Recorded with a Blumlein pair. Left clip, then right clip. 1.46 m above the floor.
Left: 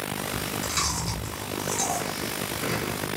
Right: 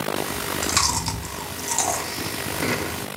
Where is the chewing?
40° right, 0.7 m.